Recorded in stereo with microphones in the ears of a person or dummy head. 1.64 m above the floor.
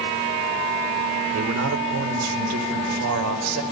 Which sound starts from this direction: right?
A man speaking, at 1.3 s.